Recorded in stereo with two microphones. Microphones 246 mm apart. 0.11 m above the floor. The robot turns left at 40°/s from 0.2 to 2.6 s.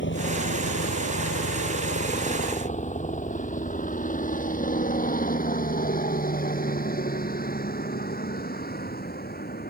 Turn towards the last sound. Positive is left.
turn(degrees=40)  # may be behind; listen again after turning